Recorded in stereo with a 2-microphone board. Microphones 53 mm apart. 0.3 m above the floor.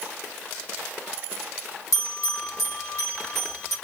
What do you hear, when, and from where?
1.9 s a bell: 70° left (ahead or behind), 1.7 m